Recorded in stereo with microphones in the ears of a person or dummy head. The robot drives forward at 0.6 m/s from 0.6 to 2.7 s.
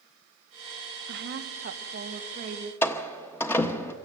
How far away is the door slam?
About 1.0 m.